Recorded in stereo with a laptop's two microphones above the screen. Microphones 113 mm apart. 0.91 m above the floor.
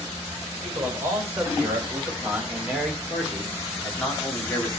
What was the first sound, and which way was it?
A man speaking, 25° right (ahead or behind).